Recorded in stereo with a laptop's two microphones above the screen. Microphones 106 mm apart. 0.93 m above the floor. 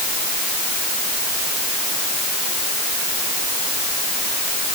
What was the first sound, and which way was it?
Only background noise.